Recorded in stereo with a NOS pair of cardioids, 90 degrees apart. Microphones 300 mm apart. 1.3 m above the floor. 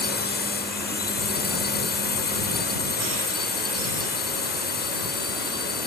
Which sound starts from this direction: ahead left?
A drone, at 0.0 s.